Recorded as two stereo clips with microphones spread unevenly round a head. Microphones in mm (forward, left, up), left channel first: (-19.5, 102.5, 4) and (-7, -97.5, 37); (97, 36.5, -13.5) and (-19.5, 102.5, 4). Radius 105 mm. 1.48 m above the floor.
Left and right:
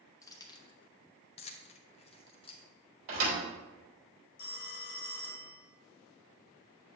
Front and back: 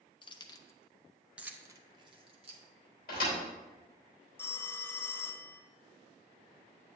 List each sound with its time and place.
0.2 s keys jangling: 15° left, 0.8 m; by 2.6 s 160° left, 1.0 m
3.1 s a thud: 70° right, 2.5 m
4.4 s a phone ringing: 45° left, 0.8 m